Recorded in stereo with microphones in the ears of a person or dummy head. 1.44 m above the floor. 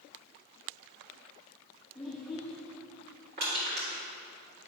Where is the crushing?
50° right (ahead or behind), 3.5 m.